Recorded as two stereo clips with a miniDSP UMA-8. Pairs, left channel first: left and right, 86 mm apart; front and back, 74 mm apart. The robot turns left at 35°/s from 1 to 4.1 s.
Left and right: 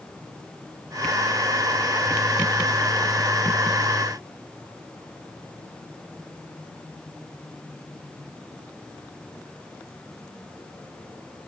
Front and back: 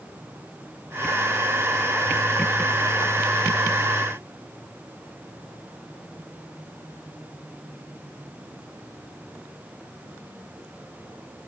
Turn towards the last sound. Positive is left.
No sound to turn to.